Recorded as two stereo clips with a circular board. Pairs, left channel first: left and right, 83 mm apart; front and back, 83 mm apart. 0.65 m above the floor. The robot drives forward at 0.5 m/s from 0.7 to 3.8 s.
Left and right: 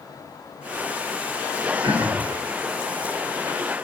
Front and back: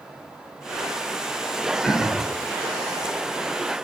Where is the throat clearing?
90° right, 0.7 m; by 2.3 s 110° right, 0.8 m.